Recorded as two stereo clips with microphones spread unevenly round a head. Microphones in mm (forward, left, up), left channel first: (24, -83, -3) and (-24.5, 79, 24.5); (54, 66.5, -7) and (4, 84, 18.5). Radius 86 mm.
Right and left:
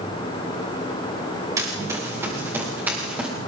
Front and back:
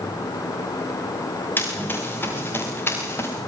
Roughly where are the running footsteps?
Ahead left.